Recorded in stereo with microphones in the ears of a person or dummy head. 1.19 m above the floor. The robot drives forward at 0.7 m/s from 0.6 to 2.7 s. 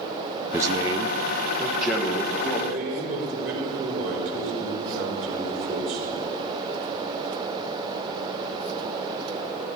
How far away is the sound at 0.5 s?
About 0.6 m.